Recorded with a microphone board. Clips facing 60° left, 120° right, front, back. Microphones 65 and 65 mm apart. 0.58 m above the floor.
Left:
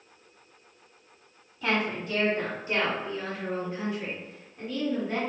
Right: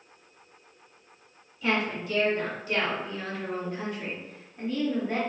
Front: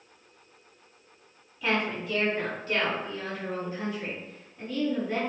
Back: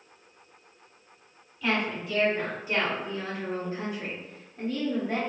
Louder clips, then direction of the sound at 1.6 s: Even, even; 85° left.